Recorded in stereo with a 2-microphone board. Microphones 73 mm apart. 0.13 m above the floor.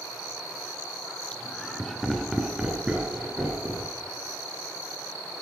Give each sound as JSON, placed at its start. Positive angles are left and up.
{"t": 1.3, "sound": "laughter", "side_deg": 15, "distance_m": 1.6}